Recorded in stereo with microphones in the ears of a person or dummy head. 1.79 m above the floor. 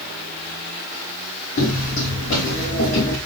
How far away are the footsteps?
About 6 m.